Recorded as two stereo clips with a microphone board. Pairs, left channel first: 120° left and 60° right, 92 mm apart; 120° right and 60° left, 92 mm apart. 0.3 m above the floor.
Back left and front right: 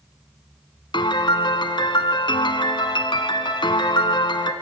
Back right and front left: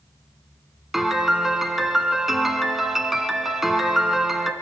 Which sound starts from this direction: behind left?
A piano, at 0.9 s.